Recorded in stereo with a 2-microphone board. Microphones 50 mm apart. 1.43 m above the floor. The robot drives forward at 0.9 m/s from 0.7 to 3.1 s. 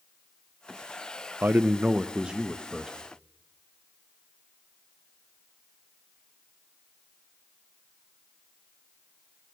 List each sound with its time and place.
1.4 s a man speaking: 45° right (ahead or behind), 0.5 m; by 3.0 s 15° right (ahead or behind), 1.7 m